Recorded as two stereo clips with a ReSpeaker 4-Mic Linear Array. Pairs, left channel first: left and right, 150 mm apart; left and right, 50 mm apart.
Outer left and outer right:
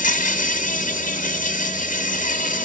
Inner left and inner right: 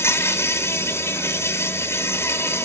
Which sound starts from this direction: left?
An insect, at 0.0 s.